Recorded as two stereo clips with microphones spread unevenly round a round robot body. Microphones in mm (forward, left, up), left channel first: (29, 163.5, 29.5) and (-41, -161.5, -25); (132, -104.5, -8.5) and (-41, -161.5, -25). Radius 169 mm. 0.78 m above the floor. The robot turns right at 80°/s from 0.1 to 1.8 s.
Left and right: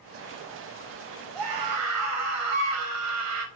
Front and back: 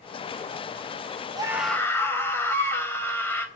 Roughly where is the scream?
Right.